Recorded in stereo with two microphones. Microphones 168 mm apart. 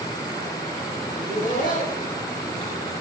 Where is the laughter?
55° left (ahead or behind), 7.5 m.